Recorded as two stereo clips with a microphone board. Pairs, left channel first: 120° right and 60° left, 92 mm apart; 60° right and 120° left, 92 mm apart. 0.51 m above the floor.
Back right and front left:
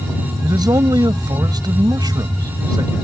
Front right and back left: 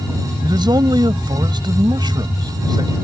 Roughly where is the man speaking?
Left.